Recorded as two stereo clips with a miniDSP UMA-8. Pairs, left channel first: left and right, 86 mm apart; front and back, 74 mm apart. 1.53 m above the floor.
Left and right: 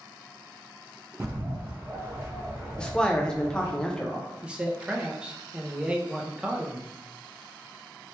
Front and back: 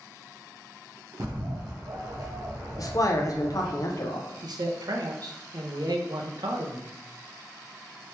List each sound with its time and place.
1.2 s a bird: 150° right, 1.0 m
2.8 s a man speaking: 10° left, 0.6 m
4.4 s a man speaking: 165° right, 0.6 m